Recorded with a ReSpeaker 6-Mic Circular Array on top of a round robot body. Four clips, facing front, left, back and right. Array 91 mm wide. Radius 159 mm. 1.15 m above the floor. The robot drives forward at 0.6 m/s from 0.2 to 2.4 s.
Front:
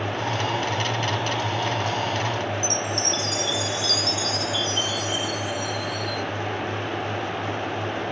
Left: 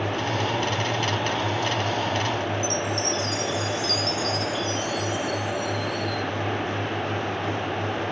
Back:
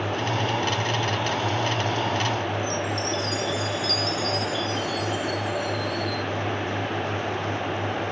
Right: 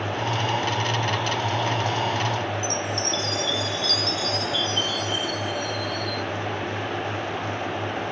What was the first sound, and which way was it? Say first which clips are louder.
A chime: left 1 dB, even; 50° right.